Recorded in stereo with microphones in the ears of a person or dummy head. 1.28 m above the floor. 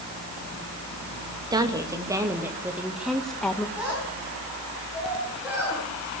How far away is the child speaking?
About 9.5 m.